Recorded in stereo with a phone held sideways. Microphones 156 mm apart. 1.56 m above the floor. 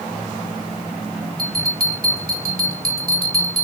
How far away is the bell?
About 1.1 m.